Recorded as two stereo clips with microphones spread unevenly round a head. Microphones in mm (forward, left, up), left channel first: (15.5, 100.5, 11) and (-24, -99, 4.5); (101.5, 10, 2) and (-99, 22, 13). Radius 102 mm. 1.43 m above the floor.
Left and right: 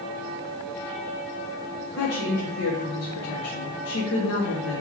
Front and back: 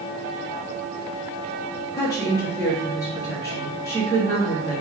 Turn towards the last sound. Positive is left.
turn(degrees=70)